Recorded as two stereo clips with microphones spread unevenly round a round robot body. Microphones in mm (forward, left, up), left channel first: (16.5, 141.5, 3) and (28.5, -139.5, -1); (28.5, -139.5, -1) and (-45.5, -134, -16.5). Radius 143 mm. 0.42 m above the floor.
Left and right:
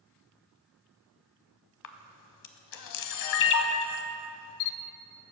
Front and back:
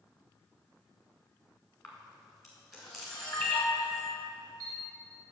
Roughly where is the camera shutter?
Left.